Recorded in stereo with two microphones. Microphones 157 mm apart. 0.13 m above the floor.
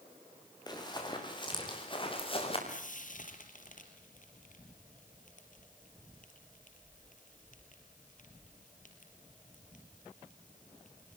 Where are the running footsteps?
30° left (ahead or behind), 8.5 m; by 2.6 s 40° left (ahead or behind), 8 m.